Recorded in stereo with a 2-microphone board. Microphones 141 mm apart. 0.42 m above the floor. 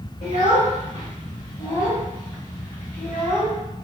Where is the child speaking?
60° left (ahead or behind), 1.0 m; by 3.6 s 10° left (ahead or behind), 1.9 m.